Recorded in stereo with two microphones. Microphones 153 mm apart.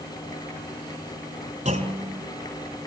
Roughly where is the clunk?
Right.